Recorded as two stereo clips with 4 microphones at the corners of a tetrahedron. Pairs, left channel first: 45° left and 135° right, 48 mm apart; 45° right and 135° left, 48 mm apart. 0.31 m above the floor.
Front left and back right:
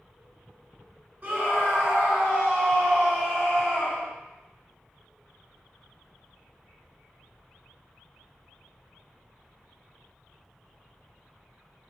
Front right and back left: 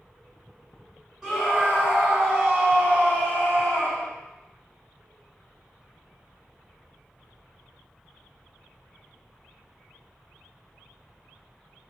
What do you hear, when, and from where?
1.2 s a scream: 145° right, 1.2 m; by 4.1 s 115° left, 1.6 m